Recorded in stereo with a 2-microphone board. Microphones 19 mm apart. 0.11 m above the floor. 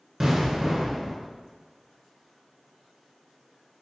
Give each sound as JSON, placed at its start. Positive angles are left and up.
{"t": 0.2, "sound": "an explosion", "side_deg": -20, "distance_m": 0.9}